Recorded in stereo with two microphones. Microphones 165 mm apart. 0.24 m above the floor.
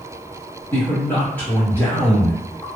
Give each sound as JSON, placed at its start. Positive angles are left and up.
{"t": 0.7, "sound": "a man speaking", "side_deg": 10, "distance_m": 1.3}